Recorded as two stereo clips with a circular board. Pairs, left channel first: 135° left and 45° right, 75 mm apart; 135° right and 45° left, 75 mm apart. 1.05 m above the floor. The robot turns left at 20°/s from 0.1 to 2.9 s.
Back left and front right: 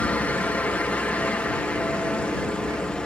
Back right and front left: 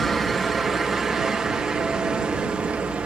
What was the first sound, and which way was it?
A helicopter, 140° left.